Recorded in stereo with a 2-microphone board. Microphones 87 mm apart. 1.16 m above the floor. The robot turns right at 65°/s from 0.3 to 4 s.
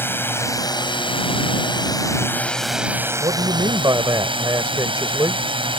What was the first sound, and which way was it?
A drone, 25° left.